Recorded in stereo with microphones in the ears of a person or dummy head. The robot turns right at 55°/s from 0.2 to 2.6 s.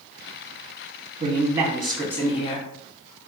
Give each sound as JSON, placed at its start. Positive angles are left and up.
{"t": 1.2, "sound": "a man speaking", "azimuth_deg": -35, "distance_m": 0.8}